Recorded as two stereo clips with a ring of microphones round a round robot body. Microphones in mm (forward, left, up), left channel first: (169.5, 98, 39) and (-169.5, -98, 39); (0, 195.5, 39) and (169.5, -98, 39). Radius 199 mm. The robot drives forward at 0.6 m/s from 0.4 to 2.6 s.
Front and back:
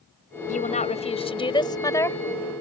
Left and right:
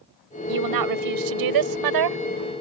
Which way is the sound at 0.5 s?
40° right.